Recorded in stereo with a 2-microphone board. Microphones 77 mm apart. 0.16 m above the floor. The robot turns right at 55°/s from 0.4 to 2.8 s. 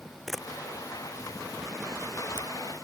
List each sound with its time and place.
0.3 s a camera shutter: centre (ahead or behind); by 2.5 s 65° right (ahead or behind)